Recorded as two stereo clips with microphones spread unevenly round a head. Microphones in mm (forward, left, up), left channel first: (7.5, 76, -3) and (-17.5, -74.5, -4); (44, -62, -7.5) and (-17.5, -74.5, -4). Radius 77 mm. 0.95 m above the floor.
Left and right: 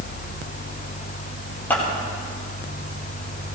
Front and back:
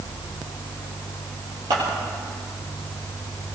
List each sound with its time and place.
1.7 s scissors: 160° left, 7 m